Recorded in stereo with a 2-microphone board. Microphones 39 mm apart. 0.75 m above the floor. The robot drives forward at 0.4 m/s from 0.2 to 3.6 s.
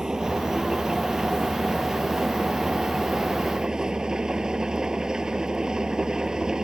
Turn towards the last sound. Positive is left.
turn(degrees=-15)  # may be behind; listen again after turning